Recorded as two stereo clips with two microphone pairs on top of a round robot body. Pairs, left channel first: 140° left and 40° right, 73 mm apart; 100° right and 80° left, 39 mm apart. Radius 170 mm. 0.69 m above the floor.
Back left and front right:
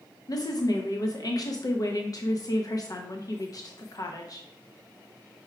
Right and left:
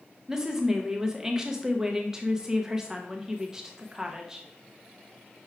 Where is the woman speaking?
140° left, 0.7 m.